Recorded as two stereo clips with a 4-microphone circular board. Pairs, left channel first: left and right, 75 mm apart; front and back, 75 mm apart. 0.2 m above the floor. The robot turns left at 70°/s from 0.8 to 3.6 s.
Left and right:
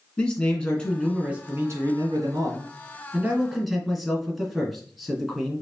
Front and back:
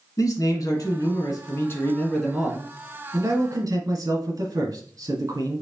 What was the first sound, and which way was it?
A man speaking, 15° left.